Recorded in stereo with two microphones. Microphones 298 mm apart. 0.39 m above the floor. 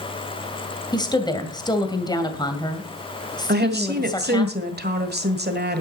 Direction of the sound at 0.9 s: 15° left (ahead or behind).